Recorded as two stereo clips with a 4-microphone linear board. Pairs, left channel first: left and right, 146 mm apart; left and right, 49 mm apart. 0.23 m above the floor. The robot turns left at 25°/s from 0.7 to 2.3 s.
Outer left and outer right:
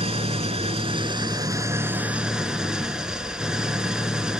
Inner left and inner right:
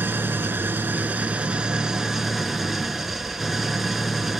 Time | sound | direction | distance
0.0 | an engine running | 135° right | 0.8 m